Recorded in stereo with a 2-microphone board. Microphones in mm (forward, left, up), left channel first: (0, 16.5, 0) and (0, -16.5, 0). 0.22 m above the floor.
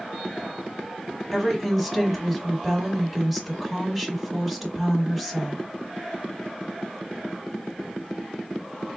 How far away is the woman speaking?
About 1.3 m.